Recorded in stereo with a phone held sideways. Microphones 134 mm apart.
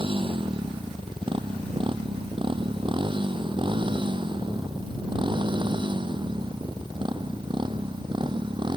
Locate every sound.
0.0 s a motorcycle: 40° right (ahead or behind); by 8.8 s 35° right (ahead or behind)